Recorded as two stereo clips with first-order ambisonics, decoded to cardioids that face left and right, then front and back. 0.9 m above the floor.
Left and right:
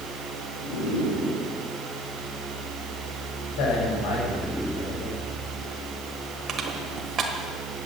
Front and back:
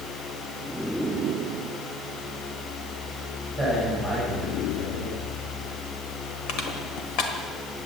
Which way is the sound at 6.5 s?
30° right.